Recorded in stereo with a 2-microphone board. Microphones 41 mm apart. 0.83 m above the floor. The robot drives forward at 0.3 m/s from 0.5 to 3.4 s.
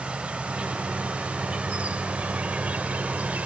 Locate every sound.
0.0 s an insect: 30° right (ahead or behind); by 3.5 s 40° right (ahead or behind)